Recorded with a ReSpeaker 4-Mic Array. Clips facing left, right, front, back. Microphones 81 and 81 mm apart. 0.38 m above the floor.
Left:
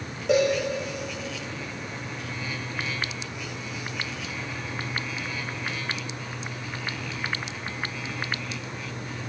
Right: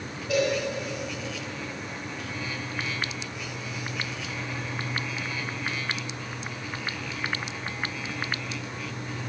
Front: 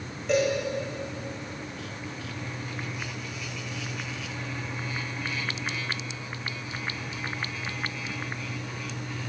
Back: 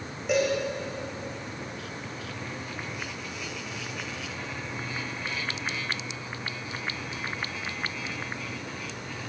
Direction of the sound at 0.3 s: 100° left.